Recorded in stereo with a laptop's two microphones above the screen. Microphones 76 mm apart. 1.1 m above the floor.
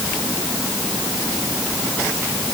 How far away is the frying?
No frying in this recording.